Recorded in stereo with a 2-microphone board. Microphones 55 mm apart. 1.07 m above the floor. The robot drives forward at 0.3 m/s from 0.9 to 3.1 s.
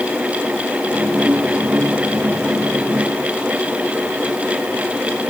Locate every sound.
Only background noise.